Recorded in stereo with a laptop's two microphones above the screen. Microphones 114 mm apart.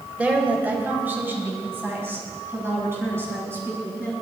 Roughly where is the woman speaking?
Centre.